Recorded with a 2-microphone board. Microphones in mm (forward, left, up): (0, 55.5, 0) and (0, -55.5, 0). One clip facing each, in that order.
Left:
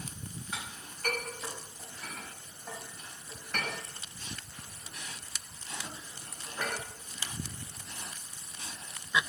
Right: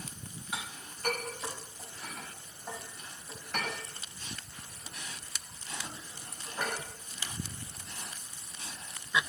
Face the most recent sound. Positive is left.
turn(degrees=-15)  # may be behind; listen again after turning